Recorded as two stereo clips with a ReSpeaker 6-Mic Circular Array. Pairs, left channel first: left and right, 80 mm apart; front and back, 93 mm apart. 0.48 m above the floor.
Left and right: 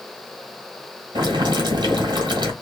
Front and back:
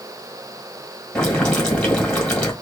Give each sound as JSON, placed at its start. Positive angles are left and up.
{"t": 1.1, "sound": "boiling", "azimuth_deg": -80, "distance_m": 1.9}